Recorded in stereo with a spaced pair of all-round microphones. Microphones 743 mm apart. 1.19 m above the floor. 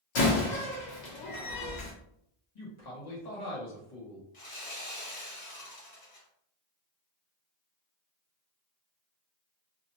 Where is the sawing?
60° left (ahead or behind), 1.4 m.